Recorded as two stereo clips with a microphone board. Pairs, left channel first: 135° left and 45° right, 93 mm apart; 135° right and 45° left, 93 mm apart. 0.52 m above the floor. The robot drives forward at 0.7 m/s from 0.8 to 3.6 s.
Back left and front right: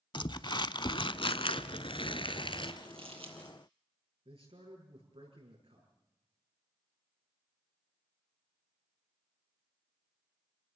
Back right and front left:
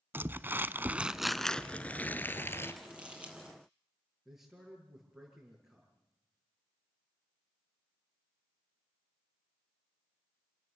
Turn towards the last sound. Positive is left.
turn(degrees=-45)